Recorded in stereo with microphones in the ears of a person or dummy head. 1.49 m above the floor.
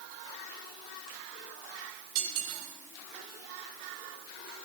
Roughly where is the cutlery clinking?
Right.